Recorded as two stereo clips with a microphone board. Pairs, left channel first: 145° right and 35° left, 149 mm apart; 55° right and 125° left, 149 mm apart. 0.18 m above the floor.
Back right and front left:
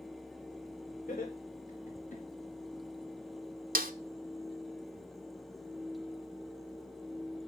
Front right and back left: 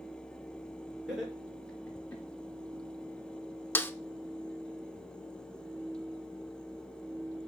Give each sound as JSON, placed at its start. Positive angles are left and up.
{"t": 1.1, "sound": "laughter", "azimuth_deg": -150, "distance_m": 4.0}
{"t": 3.8, "sound": "a snare drum", "azimuth_deg": 20, "distance_m": 0.6}